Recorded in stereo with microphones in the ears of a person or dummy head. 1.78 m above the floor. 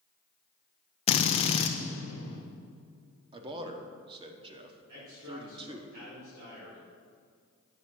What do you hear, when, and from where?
1.1 s a drill: 35° left (ahead or behind), 0.6 m
3.3 s a man speaking: 25° right (ahead or behind), 1.0 m
4.9 s a man speaking: 45° right (ahead or behind), 3.5 m